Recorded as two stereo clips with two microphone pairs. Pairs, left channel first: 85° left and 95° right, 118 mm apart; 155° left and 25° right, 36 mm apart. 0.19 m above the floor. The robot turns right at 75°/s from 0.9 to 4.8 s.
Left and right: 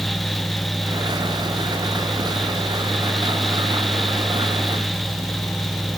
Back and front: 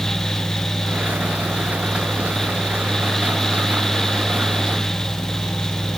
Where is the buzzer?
I don't hear a buzzer.